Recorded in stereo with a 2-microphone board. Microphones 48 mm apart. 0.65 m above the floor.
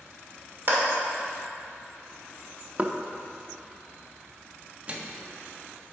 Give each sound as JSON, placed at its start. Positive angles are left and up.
{"t": 0.7, "sound": "a clap", "side_deg": -50, "distance_m": 1.6}
{"t": 2.8, "sound": "knocking", "side_deg": -30, "distance_m": 0.5}
{"t": 4.9, "sound": "a microwave", "side_deg": -30, "distance_m": 0.7}